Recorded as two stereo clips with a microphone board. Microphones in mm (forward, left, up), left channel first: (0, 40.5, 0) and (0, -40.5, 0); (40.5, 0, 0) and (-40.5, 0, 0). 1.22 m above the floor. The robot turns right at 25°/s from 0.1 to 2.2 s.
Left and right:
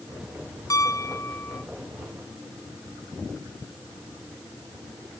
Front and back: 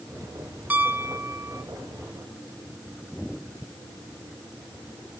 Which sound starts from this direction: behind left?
A piano, at 0.7 s.